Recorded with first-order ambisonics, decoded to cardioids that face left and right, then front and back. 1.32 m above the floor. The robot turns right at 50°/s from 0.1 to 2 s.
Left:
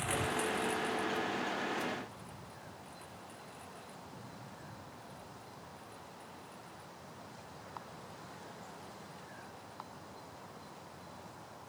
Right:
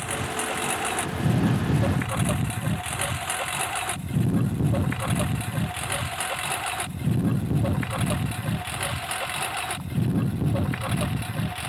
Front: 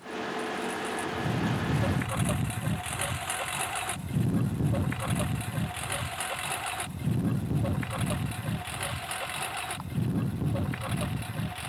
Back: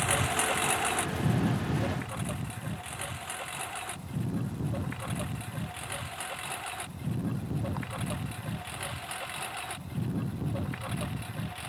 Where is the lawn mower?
160° right; by 11.7 s 80° right.